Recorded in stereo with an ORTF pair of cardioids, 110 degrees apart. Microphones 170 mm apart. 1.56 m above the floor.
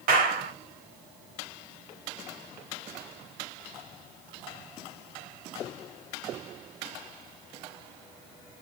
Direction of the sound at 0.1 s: 60° right.